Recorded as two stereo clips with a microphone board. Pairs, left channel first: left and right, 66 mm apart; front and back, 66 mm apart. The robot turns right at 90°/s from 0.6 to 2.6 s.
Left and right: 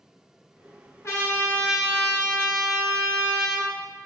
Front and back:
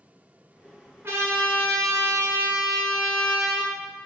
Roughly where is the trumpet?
Behind left.